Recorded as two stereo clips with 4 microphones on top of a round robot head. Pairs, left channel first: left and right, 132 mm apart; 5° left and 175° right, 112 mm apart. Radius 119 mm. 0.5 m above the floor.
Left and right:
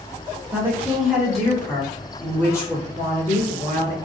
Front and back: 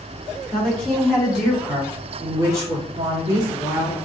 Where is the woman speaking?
60° right, 1.2 m; by 4.0 s 135° left, 1.9 m.